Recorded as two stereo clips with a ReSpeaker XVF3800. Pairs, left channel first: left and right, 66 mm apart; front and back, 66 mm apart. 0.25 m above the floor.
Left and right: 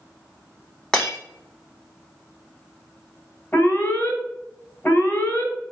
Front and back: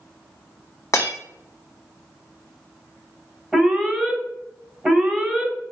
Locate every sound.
0.9 s breaking glass: 10° left, 1.0 m
3.5 s an alarm: 85° left, 1.5 m